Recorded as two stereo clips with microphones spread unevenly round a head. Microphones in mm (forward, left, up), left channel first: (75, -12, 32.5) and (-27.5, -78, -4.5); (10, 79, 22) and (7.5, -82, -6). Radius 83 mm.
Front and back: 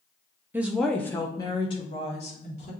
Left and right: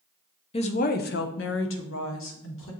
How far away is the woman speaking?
About 0.5 m.